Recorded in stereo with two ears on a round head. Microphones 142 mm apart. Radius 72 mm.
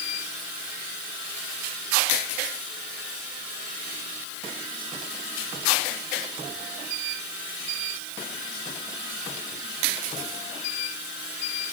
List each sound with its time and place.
Only background noise.